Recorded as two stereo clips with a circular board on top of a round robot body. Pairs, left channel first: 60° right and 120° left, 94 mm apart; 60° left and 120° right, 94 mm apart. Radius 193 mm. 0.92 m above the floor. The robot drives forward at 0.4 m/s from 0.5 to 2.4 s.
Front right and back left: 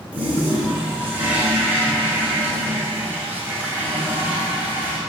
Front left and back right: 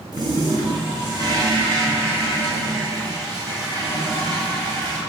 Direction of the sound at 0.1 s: 165° right.